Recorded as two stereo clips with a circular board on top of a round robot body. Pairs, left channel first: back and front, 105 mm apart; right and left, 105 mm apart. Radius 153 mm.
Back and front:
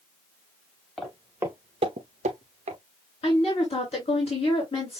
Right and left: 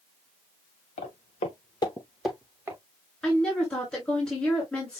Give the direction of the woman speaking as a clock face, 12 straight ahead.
6 o'clock.